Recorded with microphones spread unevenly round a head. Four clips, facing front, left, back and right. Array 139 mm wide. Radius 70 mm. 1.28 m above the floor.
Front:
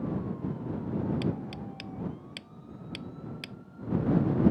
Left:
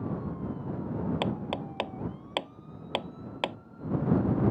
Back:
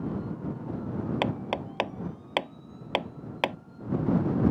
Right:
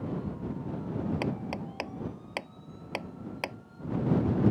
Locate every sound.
1.2 s hammering: 165° left